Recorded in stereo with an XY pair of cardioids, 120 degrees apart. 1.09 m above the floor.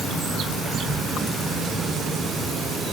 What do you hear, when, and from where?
0.7 s whispering: 25° right, 0.9 m